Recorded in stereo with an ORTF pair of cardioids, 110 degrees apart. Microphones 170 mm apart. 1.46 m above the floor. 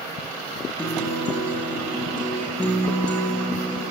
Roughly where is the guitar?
Ahead.